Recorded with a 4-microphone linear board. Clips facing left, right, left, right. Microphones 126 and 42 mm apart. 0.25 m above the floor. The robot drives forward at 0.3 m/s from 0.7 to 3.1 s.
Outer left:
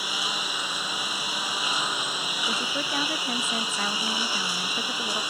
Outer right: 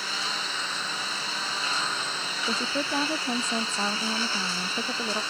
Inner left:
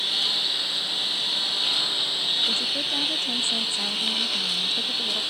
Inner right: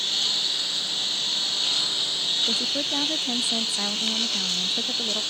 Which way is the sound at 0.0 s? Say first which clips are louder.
Outer left 1 dB, inner left 1 dB; 10° left (ahead or behind).